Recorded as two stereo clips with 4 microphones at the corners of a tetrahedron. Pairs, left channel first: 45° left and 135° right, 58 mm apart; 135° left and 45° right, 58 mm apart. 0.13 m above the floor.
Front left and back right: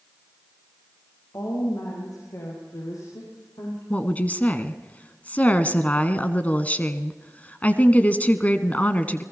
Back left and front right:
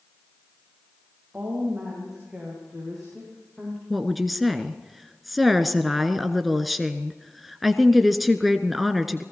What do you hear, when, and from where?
1.3 s a woman speaking: 25° left, 6.5 m; by 3.8 s 55° left, 7.5 m
3.9 s a woman speaking: 40° left, 1.2 m